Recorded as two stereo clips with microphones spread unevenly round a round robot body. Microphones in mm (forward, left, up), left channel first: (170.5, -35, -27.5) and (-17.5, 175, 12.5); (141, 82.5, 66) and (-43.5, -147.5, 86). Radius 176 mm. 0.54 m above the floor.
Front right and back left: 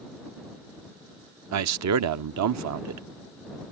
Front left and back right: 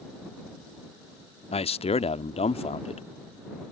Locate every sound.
1.5 s a man speaking: 115° left